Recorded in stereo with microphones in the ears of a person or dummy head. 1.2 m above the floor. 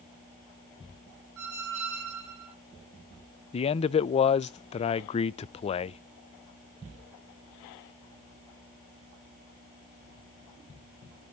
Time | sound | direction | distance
1.4 | a squeak | 80° right | 3.5 m
3.5 | a man speaking | 35° left (ahead or behind) | 0.5 m